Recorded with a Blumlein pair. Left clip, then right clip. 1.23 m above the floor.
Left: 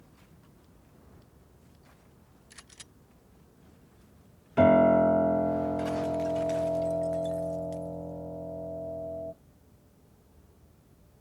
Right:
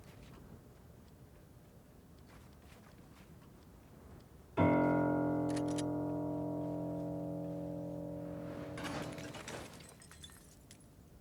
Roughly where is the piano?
Ahead left.